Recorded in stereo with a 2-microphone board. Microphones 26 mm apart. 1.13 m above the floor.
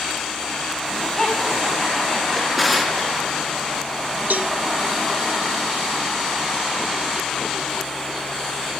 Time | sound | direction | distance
0.8 | laughter | 10° left (ahead or behind) | 8 m
2.3 | a drawer | centre (ahead or behind) | 3.5 m
4.3 | a cowbell | 75° right (ahead or behind) | 0.6 m